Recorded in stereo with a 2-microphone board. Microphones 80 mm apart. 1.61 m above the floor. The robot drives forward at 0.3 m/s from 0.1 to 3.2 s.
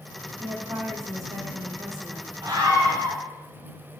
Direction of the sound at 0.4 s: 45° right (ahead or behind).